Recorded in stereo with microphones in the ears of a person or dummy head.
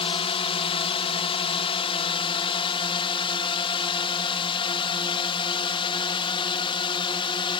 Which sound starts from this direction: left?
A drone, at 0.0 s.